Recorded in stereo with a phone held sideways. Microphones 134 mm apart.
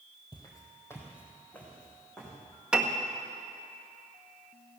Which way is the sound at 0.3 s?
35° left (ahead or behind).